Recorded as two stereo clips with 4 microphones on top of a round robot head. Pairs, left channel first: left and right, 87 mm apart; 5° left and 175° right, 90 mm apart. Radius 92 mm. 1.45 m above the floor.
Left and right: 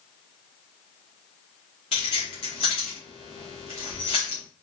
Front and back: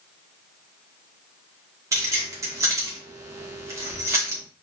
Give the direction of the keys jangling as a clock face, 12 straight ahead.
8 o'clock.